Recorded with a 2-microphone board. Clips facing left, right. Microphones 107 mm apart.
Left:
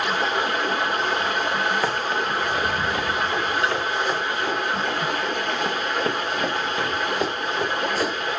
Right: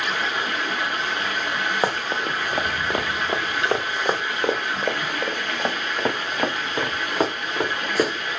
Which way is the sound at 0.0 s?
40° left (ahead or behind).